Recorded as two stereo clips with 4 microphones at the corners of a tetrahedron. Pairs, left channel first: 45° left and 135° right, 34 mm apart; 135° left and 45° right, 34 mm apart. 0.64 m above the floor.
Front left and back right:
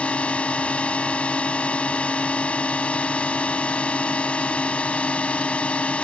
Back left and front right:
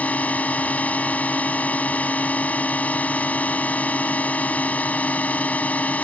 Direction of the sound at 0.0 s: 95° left.